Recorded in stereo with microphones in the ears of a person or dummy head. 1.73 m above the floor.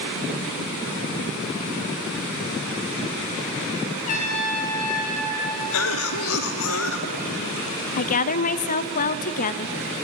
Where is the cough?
85° left, 0.9 m.